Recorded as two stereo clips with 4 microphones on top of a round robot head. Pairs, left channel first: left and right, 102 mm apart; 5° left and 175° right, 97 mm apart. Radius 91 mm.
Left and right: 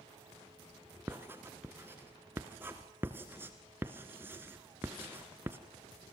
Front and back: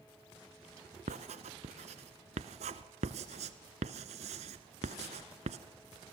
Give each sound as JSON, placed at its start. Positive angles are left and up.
{"t": 1.1, "sound": "writing", "azimuth_deg": -165, "distance_m": 0.9}